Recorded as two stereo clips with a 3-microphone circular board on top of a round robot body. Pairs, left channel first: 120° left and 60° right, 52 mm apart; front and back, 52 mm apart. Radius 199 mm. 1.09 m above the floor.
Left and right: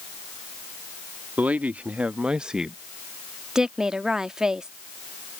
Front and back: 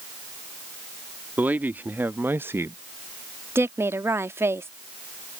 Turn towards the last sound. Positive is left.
turn(degrees=-140)